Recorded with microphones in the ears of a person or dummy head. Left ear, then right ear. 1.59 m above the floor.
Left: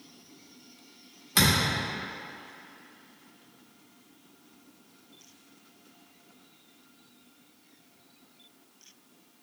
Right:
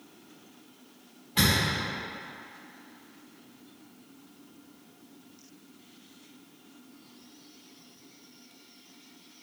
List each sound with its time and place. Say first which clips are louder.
1.4 s a thud: left 1 dB; 55° left (ahead or behind), 1.6 m